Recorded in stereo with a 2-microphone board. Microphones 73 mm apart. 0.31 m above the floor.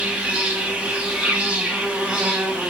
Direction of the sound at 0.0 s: 15° right (ahead or behind).